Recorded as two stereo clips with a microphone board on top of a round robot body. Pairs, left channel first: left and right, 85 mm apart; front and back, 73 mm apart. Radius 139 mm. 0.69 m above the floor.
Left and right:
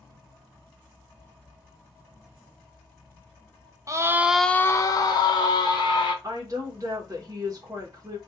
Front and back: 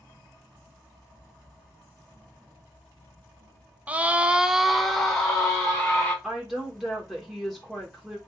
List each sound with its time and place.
3.9 s a scream: 115° right, 0.6 m; by 6.1 s 75° left, 1.3 m
6.2 s a woman speaking: 100° right, 1.1 m